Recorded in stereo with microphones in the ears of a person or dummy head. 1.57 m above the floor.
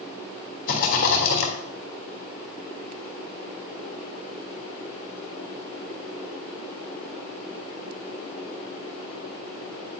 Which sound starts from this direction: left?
A rattle, at 0.7 s.